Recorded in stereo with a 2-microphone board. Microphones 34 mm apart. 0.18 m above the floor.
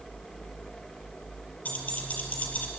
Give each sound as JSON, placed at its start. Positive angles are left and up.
{"t": 1.6, "sound": "keys jangling", "side_deg": 55, "distance_m": 3.0}